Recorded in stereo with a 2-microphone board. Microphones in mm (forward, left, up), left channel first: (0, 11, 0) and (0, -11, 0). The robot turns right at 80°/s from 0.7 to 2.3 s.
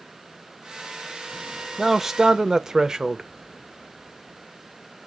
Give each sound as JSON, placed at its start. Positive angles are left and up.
{"t": 1.8, "sound": "a man speaking", "azimuth_deg": 180, "distance_m": 0.6}